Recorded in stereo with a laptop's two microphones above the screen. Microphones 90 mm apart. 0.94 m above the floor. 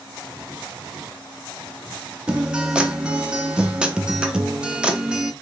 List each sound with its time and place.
2.3 s a guitar: 10° right (ahead or behind), 0.5 m